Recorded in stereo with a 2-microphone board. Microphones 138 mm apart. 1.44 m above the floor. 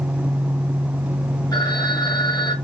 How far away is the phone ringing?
About 3.5 m.